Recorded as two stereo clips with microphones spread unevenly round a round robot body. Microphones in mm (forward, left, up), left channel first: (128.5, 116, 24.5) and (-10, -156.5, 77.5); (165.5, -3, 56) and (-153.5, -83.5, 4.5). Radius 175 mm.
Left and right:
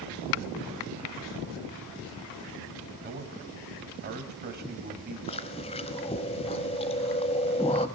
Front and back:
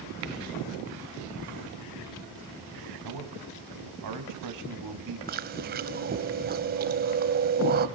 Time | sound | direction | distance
3.0 | a man speaking | straight behind | 2.5 m
5.3 | chewing | 135° left | 0.8 m